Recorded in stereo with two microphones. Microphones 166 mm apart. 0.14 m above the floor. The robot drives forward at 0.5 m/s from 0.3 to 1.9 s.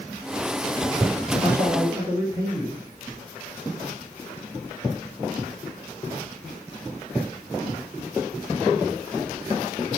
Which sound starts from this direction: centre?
A man speaking, at 1.4 s.